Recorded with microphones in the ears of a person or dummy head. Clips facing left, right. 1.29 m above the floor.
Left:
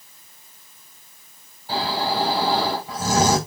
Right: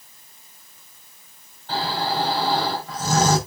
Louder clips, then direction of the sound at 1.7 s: Left 1 dB; 10° left (ahead or behind).